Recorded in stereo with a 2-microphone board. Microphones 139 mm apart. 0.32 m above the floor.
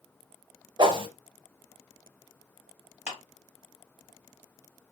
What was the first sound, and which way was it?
A whoosh, 30° right (ahead or behind).